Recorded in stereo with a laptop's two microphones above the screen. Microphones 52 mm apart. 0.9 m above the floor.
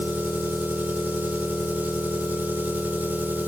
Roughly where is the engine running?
Right.